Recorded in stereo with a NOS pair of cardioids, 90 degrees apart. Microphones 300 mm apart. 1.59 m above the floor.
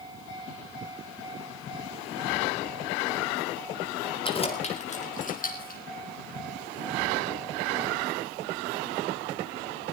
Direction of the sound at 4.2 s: 20° left.